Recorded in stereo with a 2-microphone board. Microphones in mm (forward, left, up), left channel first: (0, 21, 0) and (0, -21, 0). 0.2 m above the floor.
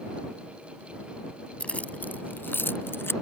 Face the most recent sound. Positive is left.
turn(degrees=65)  # may be behind; listen again after turning